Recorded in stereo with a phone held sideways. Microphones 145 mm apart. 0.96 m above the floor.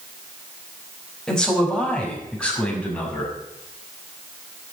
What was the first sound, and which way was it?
A man speaking, 5° left (ahead or behind).